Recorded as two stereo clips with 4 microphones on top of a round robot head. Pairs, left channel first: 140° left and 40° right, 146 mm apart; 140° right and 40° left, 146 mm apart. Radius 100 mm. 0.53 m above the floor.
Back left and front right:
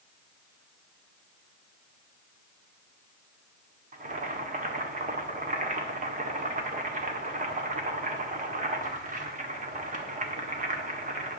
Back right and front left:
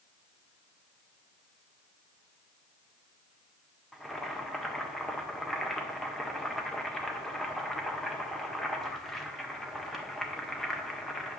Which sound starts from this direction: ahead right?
Boiling, at 3.9 s.